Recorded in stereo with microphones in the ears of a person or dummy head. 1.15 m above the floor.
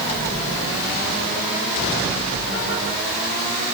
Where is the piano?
No piano in this recording.